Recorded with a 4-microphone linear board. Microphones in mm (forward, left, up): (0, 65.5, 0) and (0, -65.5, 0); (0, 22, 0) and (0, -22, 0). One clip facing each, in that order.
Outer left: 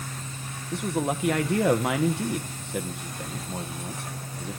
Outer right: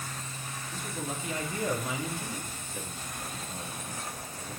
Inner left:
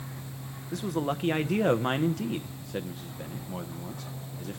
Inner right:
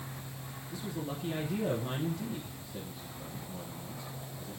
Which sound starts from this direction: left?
A man speaking, at 0.7 s.